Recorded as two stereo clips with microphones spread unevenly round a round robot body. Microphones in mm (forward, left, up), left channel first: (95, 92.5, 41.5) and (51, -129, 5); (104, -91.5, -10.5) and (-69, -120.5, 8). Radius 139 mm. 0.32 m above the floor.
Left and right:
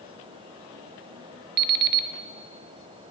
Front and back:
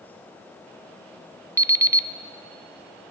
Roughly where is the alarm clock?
Right.